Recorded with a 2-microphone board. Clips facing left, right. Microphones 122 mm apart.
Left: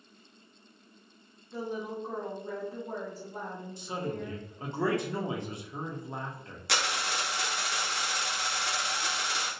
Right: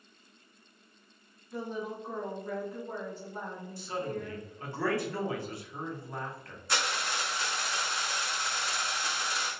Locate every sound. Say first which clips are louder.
1.5 s a woman speaking: left 1 dB; 5° left (ahead or behind), 0.8 m; by 4.8 s 35° left (ahead or behind), 1.7 m
3.8 s a man speaking: even; 20° left (ahead or behind), 0.5 m
6.7 s a dropped coin: left 1 dB; 80° left, 0.6 m